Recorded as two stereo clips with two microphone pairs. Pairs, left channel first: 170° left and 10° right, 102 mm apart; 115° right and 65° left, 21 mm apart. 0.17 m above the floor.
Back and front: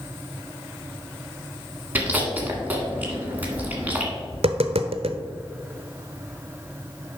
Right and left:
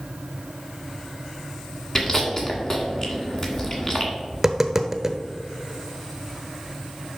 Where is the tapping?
10° right, 0.7 m.